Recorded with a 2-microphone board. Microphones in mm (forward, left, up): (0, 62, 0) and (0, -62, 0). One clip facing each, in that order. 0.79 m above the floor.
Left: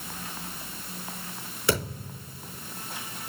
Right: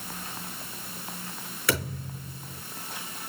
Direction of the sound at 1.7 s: 20° left (ahead or behind).